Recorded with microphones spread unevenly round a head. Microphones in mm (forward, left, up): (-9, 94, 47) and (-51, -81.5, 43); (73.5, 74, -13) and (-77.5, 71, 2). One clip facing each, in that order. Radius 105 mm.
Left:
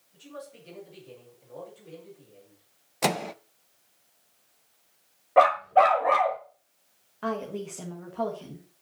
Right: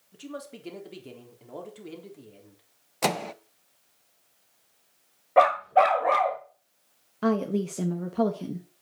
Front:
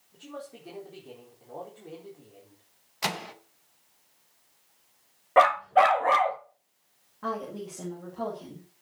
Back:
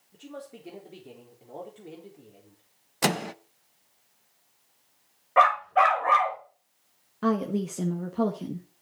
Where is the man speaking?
105° right, 4 m.